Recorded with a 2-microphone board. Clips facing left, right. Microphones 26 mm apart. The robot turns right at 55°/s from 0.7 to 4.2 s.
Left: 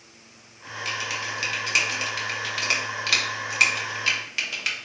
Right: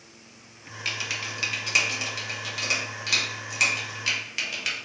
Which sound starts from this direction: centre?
Typing on a keyboard, at 0.8 s.